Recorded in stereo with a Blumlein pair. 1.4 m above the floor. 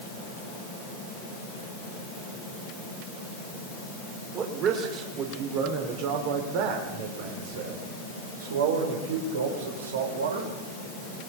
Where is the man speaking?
35° right, 4.5 m; by 10.6 s 70° right, 6 m.